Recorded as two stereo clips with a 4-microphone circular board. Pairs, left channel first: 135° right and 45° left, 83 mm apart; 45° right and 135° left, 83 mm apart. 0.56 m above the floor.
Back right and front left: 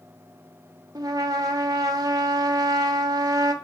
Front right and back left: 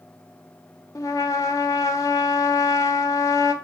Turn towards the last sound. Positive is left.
turn(degrees=5)